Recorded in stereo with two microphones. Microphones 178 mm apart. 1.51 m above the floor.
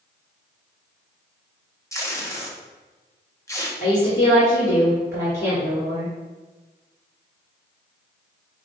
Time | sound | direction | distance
1.9 | tape being pulled | 15° left (ahead or behind) | 0.7 m
3.8 | a woman speaking | 55° left (ahead or behind) | 2 m